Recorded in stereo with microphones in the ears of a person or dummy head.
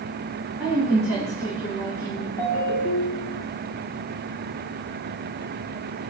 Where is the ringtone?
25° left (ahead or behind), 3 m.